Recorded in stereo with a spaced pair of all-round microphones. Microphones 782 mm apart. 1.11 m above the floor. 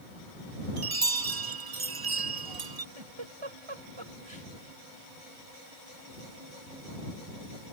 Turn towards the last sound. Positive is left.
turn(degrees=-35)  # may be behind; listen again after turning